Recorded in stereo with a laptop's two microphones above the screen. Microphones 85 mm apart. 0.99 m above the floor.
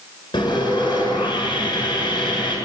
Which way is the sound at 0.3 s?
65° left (ahead or behind).